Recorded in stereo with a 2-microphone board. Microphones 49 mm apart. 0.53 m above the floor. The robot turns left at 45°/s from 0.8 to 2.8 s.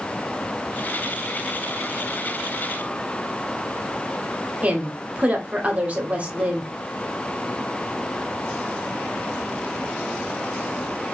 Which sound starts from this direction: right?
A woman speaking, at 4.6 s.